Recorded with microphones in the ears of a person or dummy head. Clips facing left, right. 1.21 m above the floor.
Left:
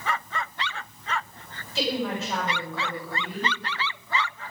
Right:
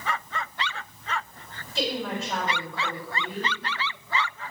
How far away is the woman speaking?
About 7.5 m.